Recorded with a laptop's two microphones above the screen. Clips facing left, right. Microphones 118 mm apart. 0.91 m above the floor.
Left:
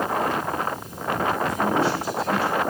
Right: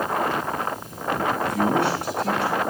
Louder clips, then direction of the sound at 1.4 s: Right 1 dB; 70° right (ahead or behind).